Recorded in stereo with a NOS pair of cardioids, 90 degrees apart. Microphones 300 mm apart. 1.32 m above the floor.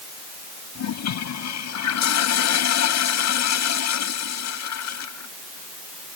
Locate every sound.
0.8 s a toilet flushing: 65° left